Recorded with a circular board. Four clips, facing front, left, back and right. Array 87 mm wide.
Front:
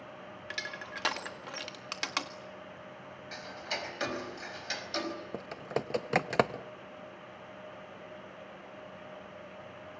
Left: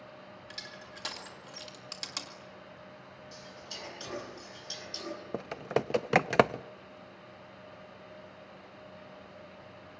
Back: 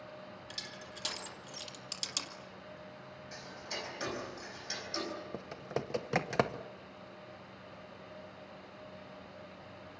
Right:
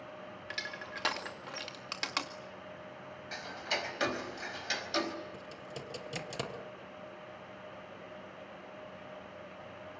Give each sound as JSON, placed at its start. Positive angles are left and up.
{"t": 0.5, "sound": "crushing", "azimuth_deg": -35, "distance_m": 2.0}
{"t": 3.3, "sound": "ticking", "azimuth_deg": -60, "distance_m": 4.5}
{"t": 5.3, "sound": "typing on a keyboard", "azimuth_deg": 80, "distance_m": 0.7}